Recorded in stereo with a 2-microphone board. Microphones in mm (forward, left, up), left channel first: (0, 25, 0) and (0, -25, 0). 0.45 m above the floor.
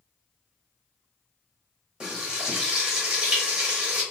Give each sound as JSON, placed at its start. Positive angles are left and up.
{"t": 2.0, "sound": "frying", "side_deg": -15, "distance_m": 1.2}